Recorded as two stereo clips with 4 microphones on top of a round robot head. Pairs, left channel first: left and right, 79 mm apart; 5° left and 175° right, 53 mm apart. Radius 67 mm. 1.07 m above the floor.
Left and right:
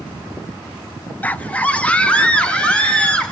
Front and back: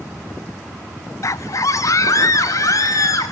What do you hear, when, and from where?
1.2 s a scream: 20° left, 0.8 m; by 3.3 s 15° left, 4 m